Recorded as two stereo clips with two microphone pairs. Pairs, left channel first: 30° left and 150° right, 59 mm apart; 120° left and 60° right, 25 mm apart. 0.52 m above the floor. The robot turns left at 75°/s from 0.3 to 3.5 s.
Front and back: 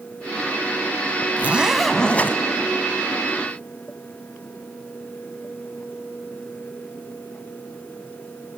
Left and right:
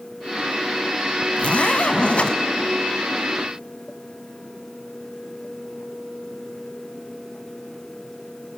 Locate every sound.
1.4 s a zipper: 160° left, 0.7 m; by 2.4 s 85° left, 0.7 m